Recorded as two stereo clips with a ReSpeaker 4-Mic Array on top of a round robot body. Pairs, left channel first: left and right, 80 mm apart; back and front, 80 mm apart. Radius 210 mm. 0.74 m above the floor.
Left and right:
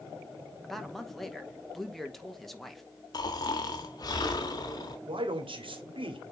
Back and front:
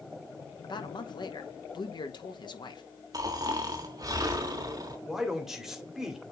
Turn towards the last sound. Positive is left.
turn(degrees=-85)